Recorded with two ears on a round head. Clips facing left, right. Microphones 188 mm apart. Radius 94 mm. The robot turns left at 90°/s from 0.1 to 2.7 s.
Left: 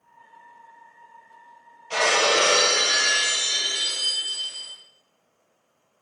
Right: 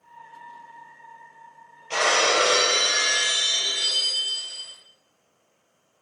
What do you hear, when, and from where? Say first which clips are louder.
1.9 s breaking glass: left 1 dB; 160° right, 3.5 m; by 4.7 s 130° left, 3.5 m